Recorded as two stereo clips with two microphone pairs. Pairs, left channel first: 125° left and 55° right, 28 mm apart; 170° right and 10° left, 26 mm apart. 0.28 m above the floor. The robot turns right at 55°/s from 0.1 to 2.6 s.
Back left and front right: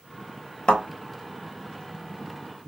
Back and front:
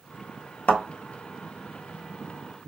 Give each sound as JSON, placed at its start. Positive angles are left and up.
{"t": 0.7, "sound": "a thud", "azimuth_deg": -175, "distance_m": 0.8}